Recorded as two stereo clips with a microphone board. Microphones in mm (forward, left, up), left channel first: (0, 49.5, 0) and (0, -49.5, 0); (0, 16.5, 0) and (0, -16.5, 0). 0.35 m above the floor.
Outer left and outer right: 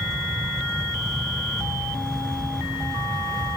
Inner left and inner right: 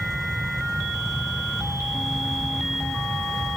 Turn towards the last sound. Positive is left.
No sound to turn to.